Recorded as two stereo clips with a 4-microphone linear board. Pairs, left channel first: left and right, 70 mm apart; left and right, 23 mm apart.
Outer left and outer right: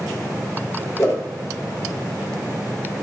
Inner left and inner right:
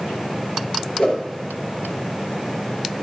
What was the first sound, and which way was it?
A whoosh, 40° left (ahead or behind).